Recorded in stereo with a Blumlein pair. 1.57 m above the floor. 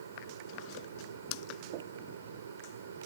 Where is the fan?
70° right.